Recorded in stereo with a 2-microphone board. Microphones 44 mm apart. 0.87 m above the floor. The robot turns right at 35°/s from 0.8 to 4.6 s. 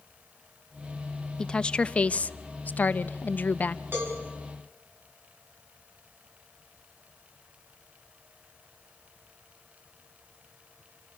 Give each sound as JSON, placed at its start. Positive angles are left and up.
{"t": 1.4, "sound": "a woman speaking", "azimuth_deg": 25, "distance_m": 0.6}
{"t": 3.9, "sound": "a cowbell", "side_deg": -60, "distance_m": 7.0}